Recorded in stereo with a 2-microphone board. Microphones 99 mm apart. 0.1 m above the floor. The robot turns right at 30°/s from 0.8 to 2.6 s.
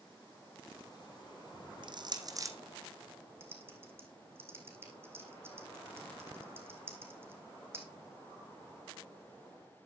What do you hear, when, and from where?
1.8 s crushing: 55° right (ahead or behind), 1.2 m; by 2.5 s 30° right (ahead or behind), 1.2 m
3.4 s typing on a keyboard: 25° right (ahead or behind), 2.5 m